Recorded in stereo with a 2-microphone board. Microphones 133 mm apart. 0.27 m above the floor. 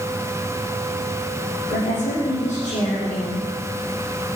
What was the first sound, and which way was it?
A woman speaking, 60° left (ahead or behind).